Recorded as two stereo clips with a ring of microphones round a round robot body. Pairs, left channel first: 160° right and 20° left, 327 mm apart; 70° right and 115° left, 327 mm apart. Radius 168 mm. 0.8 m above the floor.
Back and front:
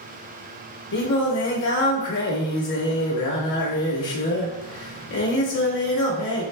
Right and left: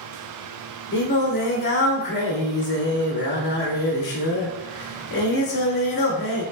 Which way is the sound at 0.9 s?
125° right.